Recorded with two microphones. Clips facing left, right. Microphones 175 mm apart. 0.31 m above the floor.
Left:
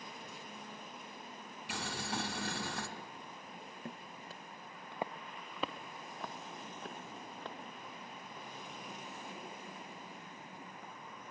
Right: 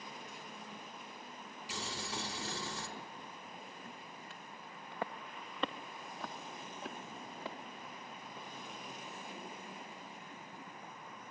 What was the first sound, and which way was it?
Boiling, 65° left (ahead or behind).